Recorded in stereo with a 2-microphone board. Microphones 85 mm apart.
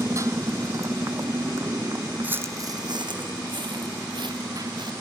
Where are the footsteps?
20° right (ahead or behind); by 4.9 s 70° right (ahead or behind).